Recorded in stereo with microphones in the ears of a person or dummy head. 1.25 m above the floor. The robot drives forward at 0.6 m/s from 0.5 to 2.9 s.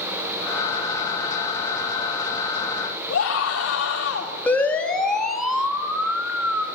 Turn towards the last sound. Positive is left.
turn(degrees=-10)  # may be behind; listen again after turning